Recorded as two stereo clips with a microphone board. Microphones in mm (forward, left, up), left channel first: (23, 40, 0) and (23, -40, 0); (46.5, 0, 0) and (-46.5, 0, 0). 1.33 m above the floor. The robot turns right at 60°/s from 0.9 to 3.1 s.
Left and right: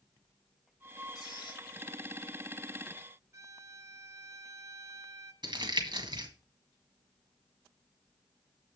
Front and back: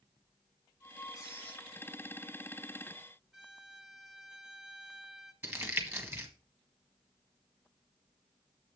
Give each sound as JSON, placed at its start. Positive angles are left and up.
{"t": 1.1, "sound": "a squeak", "azimuth_deg": 55, "distance_m": 6.0}
{"t": 3.3, "sound": "a violin", "azimuth_deg": -95, "distance_m": 1.0}
{"t": 5.4, "sound": "crumpling", "azimuth_deg": -115, "distance_m": 1.7}